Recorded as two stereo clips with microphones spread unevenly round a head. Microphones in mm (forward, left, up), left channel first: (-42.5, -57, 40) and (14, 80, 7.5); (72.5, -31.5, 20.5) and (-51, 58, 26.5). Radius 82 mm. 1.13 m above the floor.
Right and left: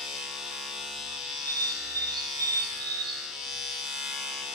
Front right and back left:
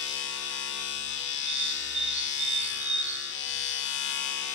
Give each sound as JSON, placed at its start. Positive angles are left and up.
{"t": 0.0, "sound": "a machine running", "azimuth_deg": -25, "distance_m": 1.5}
{"t": 1.4, "sound": "a bird", "azimuth_deg": 90, "distance_m": 1.4}